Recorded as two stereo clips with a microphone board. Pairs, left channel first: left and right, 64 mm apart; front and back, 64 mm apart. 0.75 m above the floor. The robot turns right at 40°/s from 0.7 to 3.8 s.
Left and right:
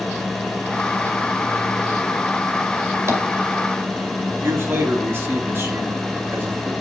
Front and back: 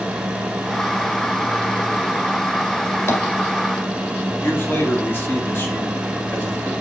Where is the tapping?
45° right, 1.9 m; by 3.2 s 40° right, 1.9 m.